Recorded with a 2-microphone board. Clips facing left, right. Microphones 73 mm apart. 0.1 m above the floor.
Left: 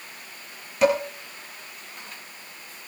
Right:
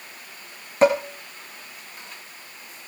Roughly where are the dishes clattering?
Right.